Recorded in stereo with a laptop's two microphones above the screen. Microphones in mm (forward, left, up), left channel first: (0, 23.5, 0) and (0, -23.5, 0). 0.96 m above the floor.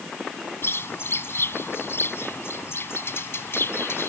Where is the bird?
60° left (ahead or behind).